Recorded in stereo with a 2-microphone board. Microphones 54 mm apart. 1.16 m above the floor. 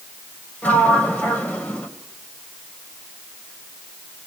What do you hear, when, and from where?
0.6 s a sliding door: 25° left (ahead or behind), 2.5 m